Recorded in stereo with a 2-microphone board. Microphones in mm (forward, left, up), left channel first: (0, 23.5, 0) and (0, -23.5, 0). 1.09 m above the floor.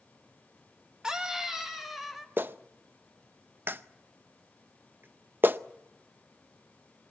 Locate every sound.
1.0 s a scream: 15° right (ahead or behind), 1.7 m; by 2.3 s centre (ahead or behind), 2.5 m
2.4 s a clap: 45° right (ahead or behind), 0.6 m